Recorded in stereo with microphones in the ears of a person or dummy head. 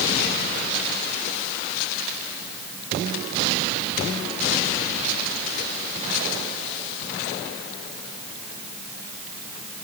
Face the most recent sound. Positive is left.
No sound to turn to.